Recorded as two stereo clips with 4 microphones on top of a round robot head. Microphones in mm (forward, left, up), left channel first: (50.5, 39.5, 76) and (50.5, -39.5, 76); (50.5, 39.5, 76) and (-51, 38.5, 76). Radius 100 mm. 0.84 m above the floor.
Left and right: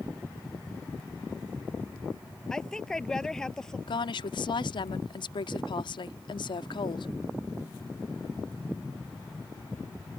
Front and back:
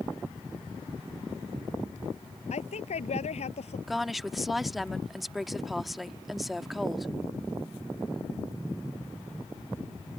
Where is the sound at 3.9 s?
90° left.